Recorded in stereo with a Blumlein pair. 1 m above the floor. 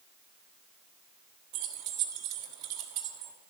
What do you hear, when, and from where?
1.5 s keys jangling: 40° right, 1.4 m